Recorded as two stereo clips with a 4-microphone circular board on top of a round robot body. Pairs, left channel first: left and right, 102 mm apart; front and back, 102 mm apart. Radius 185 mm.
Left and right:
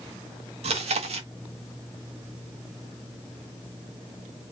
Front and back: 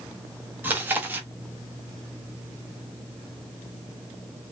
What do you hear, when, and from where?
0.6 s chewing: 110° right, 0.8 m